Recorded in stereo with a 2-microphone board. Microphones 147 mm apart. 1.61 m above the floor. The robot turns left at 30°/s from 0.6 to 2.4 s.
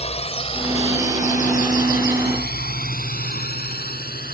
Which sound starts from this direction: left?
A drone, at 0.0 s.